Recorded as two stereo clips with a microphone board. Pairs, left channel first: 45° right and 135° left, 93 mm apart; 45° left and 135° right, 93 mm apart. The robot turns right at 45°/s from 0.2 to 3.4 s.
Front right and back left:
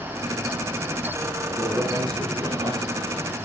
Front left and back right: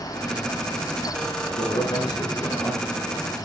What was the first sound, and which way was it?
A man speaking, 60° left.